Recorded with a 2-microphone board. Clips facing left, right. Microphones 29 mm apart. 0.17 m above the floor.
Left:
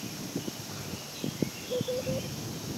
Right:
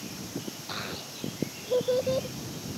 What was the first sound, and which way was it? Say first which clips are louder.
A child speaking: right 4 dB; 65° right (ahead or behind).